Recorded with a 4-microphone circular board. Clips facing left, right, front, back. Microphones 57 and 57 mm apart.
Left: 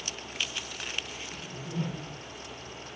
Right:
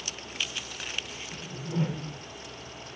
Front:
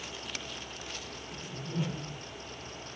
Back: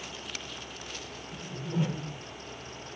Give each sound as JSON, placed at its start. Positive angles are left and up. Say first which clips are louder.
{"t": 1.3, "sound": "a whoosh", "louder": "right 4 dB, back 4 dB", "azimuth_deg": -130, "distance_m": 0.7}